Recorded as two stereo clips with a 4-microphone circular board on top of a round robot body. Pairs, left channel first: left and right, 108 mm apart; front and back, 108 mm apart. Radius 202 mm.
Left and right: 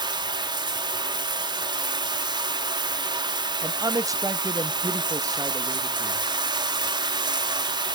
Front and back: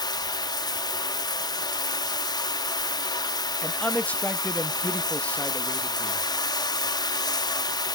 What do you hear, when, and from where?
0.0 s running water: 45° right, 0.8 m
3.6 s a man speaking: 70° right, 0.8 m